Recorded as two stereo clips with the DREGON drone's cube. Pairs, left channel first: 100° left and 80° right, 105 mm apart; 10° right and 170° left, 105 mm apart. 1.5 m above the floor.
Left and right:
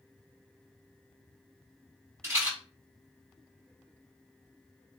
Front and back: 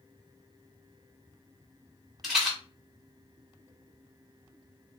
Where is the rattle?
110° right, 1.3 m.